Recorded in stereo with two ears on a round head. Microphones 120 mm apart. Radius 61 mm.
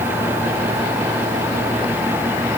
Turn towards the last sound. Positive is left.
No sound to turn to.